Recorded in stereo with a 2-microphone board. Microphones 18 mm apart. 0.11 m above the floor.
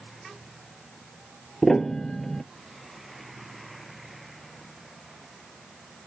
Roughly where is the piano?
Left.